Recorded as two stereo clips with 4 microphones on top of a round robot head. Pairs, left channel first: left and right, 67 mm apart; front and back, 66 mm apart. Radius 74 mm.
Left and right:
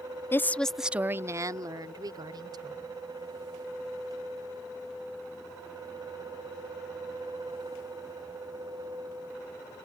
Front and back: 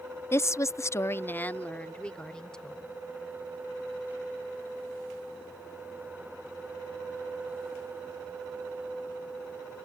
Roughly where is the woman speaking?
Ahead left.